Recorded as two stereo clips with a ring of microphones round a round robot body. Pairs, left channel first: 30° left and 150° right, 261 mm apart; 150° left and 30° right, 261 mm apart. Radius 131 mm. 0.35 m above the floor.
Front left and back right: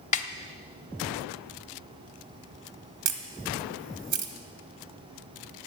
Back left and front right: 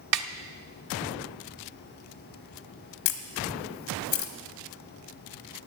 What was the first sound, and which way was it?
A snare drum, 30° right.